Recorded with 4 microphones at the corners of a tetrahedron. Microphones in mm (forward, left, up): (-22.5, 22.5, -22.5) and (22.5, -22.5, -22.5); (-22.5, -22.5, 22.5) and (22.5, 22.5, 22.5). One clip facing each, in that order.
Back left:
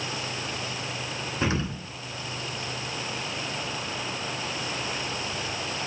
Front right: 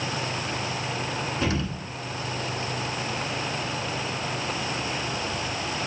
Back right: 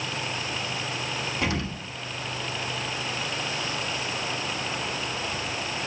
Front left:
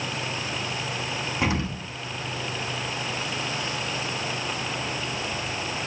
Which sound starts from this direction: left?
An explosion, at 1.4 s.